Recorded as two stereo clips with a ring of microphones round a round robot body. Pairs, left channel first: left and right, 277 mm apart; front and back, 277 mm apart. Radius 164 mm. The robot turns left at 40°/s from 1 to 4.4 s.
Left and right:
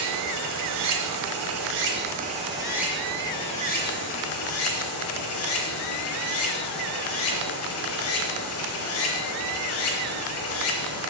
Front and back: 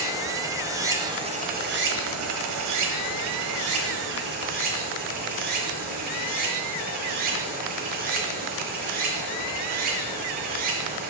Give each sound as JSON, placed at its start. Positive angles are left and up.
{"t": 0.0, "sound": "running water", "azimuth_deg": -100, "distance_m": 1.3}